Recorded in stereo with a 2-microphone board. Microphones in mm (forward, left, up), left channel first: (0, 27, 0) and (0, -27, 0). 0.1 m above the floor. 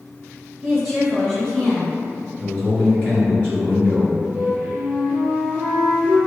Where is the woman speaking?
Centre (ahead or behind), 1.7 m; by 2.3 s 35° left (ahead or behind), 1.8 m.